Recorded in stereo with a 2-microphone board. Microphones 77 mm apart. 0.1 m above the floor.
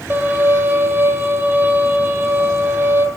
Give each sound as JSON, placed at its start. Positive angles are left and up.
{"t": 0.1, "sound": "a violin", "side_deg": -25, "distance_m": 0.9}